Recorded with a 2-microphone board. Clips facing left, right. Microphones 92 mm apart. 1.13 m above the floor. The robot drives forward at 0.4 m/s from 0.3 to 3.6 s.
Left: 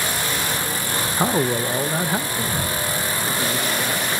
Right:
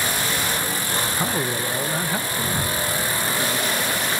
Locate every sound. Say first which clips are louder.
1.2 s a man speaking: left 9 dB; 30° left (ahead or behind), 0.6 m; by 4.2 s 10° left (ahead or behind), 1.5 m